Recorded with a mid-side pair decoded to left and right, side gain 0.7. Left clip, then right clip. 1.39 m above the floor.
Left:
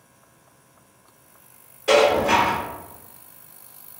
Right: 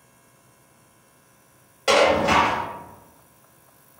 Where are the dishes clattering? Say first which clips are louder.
Left 1 dB; 55° right, 1.3 m.